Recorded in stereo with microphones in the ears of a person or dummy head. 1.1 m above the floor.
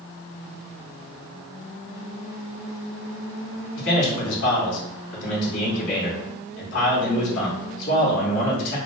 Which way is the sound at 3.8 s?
60° left (ahead or behind).